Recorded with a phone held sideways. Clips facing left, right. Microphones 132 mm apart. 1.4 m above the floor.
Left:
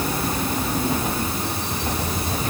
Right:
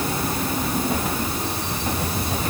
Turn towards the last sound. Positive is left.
No sound to turn to.